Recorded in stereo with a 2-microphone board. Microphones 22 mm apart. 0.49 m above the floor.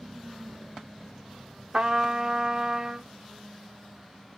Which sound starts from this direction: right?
A trumpet, at 1.7 s.